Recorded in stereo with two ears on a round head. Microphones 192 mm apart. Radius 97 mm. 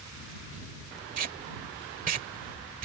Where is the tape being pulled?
40° right (ahead or behind).